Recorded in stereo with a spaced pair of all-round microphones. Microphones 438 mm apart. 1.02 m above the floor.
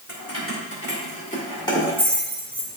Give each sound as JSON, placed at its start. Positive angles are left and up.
{"t": 0.1, "sound": "keys jangling", "side_deg": 35, "distance_m": 2.0}